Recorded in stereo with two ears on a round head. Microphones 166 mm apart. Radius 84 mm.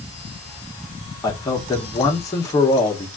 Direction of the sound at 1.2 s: 15° left (ahead or behind).